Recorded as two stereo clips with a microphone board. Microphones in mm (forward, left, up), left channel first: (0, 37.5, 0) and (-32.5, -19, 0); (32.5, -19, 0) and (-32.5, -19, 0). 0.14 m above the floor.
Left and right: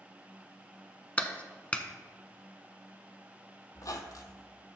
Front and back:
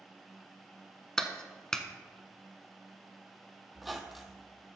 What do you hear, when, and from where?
1.2 s a clap: 60° left, 0.8 m
3.8 s a squeak: 95° left, 0.9 m